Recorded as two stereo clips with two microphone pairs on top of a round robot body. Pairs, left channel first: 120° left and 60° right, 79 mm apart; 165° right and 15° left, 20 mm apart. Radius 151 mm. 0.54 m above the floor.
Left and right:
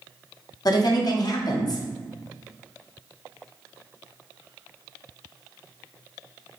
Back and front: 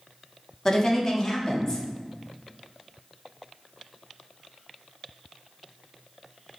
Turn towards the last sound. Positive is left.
turn(degrees=130)